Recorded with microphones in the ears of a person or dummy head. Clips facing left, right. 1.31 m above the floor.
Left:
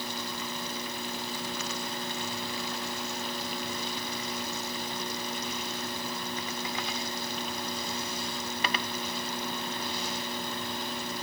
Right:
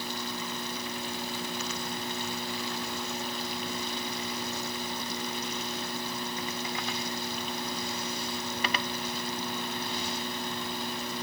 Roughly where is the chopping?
No chopping in this recording.